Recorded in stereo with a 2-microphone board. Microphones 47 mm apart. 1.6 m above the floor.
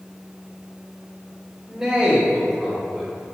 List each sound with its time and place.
1.7 s a man speaking: 15° right (ahead or behind), 1.6 m; by 3.2 s 5° left (ahead or behind), 3 m